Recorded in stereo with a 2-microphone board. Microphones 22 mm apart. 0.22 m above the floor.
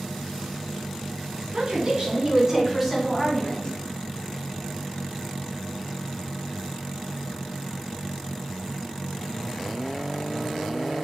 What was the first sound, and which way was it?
A woman speaking, 45° right (ahead or behind).